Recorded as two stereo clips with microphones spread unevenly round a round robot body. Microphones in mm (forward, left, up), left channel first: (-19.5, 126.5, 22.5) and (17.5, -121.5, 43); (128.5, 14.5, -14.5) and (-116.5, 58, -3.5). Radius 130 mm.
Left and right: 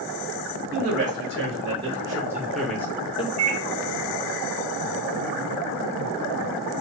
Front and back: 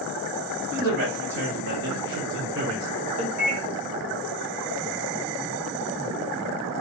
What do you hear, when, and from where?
0.7 s a man speaking: 145° right, 1.9 m; by 3.3 s 125° left, 0.9 m
3.4 s a microwave: 135° right, 1.5 m